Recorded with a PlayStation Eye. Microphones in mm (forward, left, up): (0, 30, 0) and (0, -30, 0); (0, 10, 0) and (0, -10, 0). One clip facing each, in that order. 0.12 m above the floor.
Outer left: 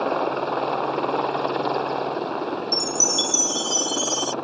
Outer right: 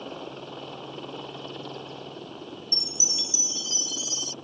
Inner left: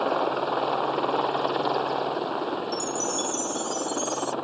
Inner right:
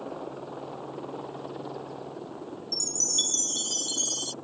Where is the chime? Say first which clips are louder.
Outer left 13 dB, even; 40° right (ahead or behind).